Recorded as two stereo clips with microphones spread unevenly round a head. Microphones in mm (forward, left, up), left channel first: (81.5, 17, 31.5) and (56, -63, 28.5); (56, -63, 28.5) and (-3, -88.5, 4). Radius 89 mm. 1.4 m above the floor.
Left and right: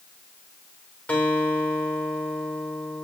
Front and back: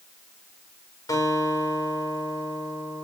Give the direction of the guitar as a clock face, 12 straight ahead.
12 o'clock.